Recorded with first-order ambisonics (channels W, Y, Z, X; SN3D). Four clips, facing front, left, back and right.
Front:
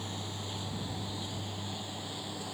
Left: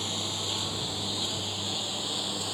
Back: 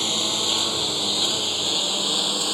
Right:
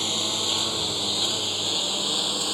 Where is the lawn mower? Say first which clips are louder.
Right 6 dB, back 17 dB; 155° right.